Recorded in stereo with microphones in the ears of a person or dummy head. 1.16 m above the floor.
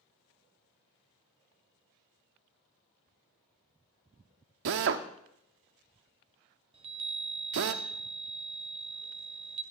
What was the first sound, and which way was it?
A drill, 55° right (ahead or behind).